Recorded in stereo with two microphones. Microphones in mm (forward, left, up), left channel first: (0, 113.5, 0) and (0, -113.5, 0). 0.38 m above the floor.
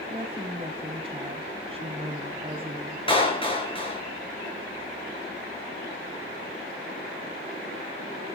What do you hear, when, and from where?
0.1 s a woman speaking: 25° right (ahead or behind), 2.5 m
3.1 s a clap: 25° left (ahead or behind), 6.5 m